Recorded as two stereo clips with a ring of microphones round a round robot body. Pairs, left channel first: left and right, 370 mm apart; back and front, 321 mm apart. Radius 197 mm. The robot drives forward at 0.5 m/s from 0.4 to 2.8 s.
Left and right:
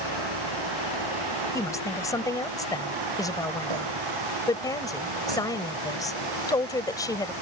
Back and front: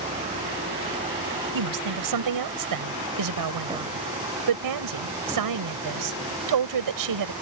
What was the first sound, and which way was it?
A vehicle, 75° right.